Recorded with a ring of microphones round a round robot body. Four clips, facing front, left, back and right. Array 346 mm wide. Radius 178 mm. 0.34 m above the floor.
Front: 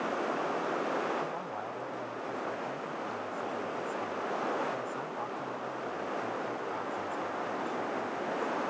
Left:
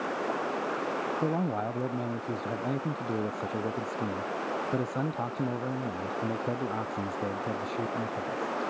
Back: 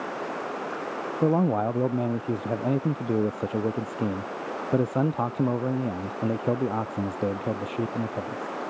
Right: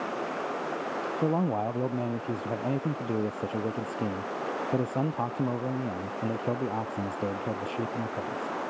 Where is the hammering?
No hammering in this recording.